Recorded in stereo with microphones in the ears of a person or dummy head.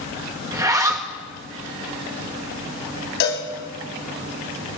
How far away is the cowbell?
About 4 m.